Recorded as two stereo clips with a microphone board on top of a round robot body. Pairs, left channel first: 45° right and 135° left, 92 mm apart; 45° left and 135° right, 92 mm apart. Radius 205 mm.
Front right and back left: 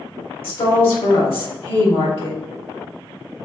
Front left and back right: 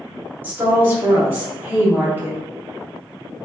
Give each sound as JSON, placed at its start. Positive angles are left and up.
{"t": 0.4, "sound": "a woman speaking", "azimuth_deg": -65, "distance_m": 1.3}